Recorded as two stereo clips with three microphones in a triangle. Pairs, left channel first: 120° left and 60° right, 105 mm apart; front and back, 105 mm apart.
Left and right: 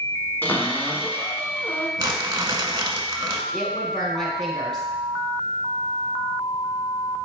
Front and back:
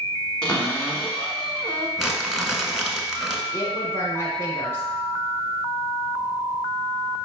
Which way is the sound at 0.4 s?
75° left.